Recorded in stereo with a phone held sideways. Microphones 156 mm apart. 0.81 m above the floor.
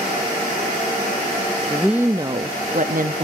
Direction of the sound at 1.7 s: 5° left (ahead or behind).